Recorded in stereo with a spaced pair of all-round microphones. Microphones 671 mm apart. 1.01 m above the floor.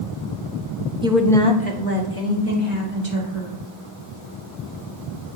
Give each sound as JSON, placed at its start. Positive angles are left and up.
{"t": 1.0, "sound": "a woman speaking", "side_deg": -10, "distance_m": 0.6}